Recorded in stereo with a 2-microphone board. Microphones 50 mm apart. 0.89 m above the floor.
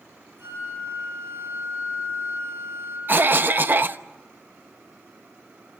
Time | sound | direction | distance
0.4 | a flute | 65° right (ahead or behind) | 10 m
3.1 | a cough | 40° right (ahead or behind) | 0.9 m